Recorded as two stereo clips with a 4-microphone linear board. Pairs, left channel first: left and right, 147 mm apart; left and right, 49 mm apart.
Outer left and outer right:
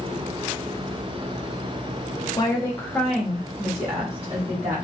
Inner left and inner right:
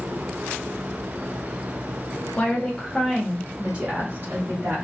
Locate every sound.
2.4 s a woman speaking: 30° left (ahead or behind), 0.9 m; by 4.8 s 50° right (ahead or behind), 1.2 m